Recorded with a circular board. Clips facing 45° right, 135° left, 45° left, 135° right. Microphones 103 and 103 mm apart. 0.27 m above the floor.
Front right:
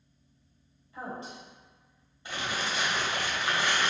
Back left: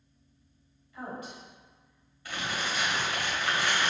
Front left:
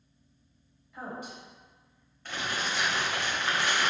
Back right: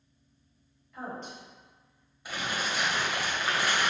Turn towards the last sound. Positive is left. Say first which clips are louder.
# even, even
turn(degrees=-70)